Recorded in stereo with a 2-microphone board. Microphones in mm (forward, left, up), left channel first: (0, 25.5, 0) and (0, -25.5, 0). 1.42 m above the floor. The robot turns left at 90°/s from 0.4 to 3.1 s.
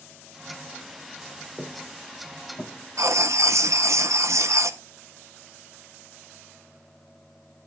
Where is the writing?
75° right (ahead or behind), 0.8 m; by 4.8 s 70° right (ahead or behind), 0.8 m.